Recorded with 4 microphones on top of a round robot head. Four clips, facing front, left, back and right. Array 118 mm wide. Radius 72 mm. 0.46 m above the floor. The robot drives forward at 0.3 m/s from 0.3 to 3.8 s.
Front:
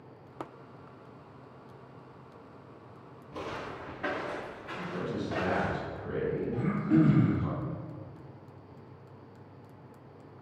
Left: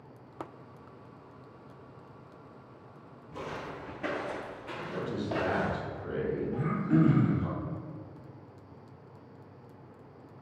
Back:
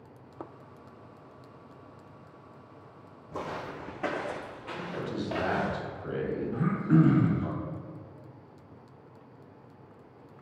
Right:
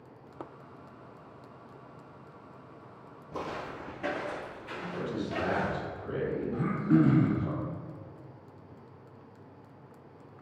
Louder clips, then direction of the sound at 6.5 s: Right 3 dB, back 2 dB; 140° right.